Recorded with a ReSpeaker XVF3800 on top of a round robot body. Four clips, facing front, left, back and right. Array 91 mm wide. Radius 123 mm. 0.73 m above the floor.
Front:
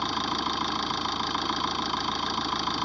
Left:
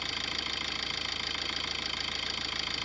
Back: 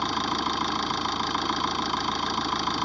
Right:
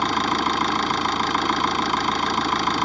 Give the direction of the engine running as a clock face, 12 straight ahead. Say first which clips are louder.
Right 17 dB, back 2 dB; 3 o'clock.